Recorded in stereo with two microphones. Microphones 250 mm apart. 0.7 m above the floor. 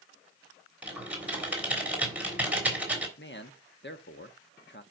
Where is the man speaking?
45° left (ahead or behind), 1.0 m.